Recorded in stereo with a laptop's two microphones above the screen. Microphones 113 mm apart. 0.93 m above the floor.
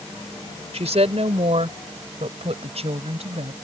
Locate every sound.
0.7 s a woman speaking: 70° right (ahead or behind); by 3.5 s 65° right (ahead or behind)